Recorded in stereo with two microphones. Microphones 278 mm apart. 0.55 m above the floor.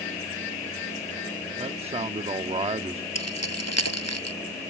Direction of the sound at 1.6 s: 20° right (ahead or behind).